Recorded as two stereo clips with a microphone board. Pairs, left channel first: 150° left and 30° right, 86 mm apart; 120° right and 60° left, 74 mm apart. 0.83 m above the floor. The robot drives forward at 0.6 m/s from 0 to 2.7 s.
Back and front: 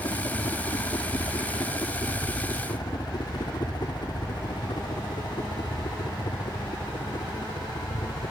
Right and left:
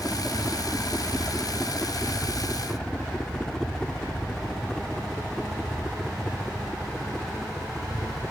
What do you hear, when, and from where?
0.0 s a helicopter: 170° left; by 8.3 s 150° left